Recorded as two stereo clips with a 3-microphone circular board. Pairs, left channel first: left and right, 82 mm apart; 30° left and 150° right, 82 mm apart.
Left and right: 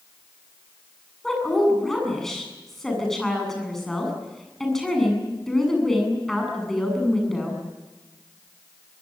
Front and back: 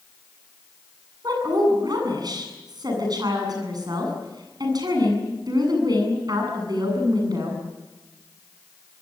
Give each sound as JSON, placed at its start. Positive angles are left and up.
{"t": 1.2, "sound": "a woman speaking", "azimuth_deg": 175, "distance_m": 8.0}